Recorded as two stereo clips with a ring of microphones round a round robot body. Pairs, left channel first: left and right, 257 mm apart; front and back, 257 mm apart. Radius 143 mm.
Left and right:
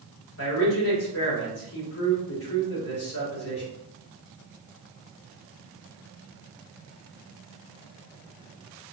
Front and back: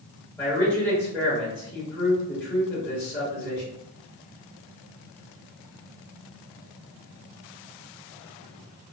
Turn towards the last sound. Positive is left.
turn(degrees=80)